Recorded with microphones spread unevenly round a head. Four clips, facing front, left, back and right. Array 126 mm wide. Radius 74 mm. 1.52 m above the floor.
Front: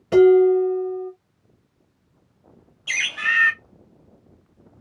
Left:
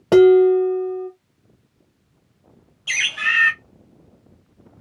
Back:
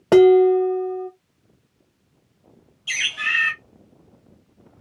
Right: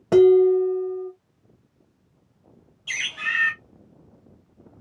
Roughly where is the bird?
Ahead left.